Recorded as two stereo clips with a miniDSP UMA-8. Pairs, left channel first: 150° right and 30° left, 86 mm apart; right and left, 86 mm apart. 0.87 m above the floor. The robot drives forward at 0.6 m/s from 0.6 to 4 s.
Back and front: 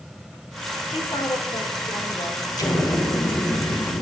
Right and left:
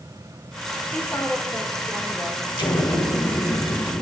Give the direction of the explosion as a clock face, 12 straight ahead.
4 o'clock.